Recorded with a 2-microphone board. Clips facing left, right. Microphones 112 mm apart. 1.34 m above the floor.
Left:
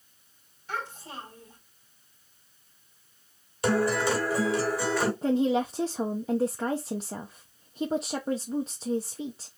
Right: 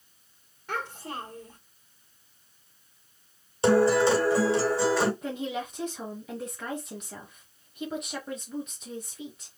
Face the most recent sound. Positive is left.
turn(degrees=30)  # may be behind; listen again after turning